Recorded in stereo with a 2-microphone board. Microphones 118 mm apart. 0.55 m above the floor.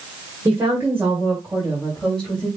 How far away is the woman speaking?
About 2 m.